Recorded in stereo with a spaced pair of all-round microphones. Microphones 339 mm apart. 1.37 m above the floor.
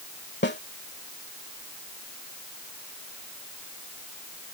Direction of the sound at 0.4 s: 30° left (ahead or behind).